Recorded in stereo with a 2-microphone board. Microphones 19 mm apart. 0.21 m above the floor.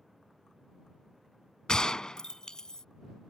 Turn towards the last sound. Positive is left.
turn(degrees=45)  # may be behind; listen again after turning